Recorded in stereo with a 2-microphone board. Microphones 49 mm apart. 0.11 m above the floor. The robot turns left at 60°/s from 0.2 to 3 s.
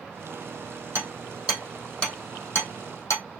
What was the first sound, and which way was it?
Hammering, 50° right (ahead or behind).